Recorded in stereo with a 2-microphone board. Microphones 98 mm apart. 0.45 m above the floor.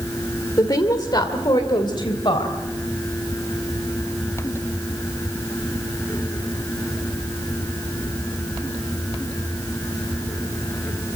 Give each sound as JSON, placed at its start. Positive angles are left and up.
{"t": 0.6, "sound": "a woman speaking", "side_deg": 40, "distance_m": 1.5}